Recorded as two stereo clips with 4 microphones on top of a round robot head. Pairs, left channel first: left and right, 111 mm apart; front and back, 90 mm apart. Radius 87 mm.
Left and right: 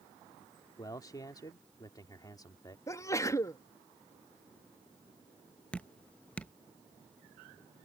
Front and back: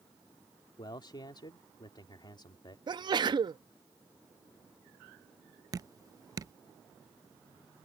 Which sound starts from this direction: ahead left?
A man speaking, at 0.8 s.